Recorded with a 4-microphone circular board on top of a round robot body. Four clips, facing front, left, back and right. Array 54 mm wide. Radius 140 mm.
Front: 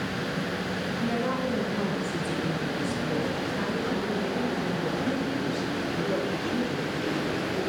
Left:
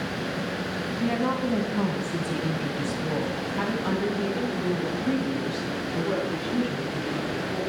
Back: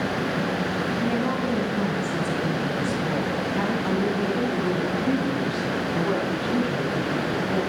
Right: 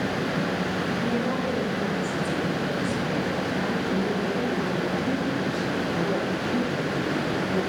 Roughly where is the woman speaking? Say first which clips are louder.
Left 4 dB, back 1 dB; left.